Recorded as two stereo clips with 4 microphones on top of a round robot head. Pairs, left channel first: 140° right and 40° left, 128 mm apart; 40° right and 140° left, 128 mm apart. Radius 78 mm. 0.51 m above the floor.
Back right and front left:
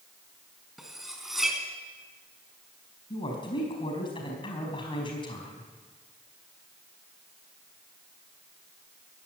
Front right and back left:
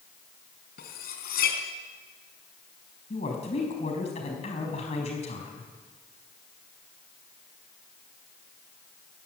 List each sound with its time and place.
0.8 s cutlery clinking: 45° right, 3.5 m
3.1 s a woman speaking: 85° right, 4.5 m